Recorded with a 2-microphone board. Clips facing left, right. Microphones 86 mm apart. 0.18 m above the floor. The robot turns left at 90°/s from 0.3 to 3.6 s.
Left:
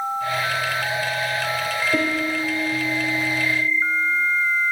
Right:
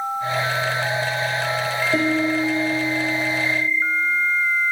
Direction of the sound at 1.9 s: 10° right.